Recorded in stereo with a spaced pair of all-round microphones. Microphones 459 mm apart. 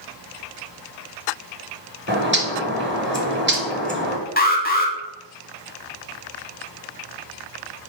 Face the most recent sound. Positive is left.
turn(degrees=20)  # may be behind; listen again after turning